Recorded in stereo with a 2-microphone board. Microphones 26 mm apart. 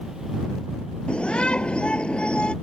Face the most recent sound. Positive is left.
turn(degrees=45)  # may be behind; listen again after turning